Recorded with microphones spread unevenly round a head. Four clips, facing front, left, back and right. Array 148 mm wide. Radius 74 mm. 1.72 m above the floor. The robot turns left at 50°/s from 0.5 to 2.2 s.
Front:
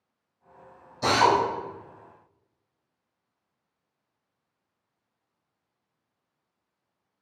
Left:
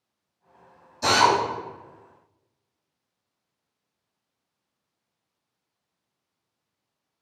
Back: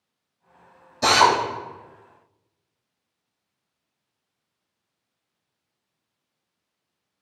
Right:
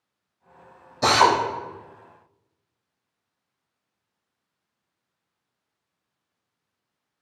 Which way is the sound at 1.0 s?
120° right.